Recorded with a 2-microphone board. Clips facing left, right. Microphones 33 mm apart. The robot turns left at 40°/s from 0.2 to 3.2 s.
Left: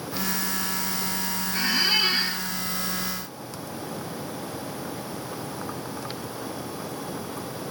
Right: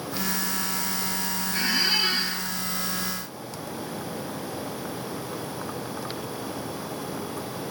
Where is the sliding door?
I don't hear a sliding door.